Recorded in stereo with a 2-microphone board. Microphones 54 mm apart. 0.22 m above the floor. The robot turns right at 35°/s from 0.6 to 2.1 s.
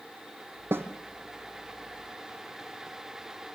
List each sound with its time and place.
0.7 s a snare drum: 45° right (ahead or behind), 1.8 m; by 0.9 s 50° right (ahead or behind), 1.8 m